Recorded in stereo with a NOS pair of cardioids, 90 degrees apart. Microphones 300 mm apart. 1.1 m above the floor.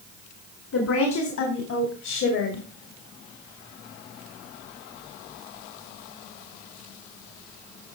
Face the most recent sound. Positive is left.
turn(degrees=70)